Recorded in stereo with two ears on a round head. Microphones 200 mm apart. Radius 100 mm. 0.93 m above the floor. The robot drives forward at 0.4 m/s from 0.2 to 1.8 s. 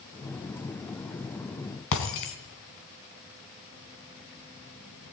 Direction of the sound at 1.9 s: 60° left (ahead or behind).